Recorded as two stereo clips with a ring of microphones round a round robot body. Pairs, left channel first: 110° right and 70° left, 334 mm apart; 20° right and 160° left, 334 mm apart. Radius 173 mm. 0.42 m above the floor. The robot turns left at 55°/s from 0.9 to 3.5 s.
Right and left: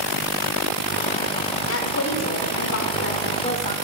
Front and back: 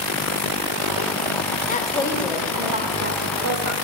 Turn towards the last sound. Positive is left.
turn(degrees=180)